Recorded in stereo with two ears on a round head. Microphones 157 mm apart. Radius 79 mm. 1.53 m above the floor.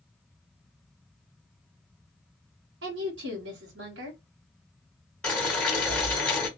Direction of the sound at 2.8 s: 80° right.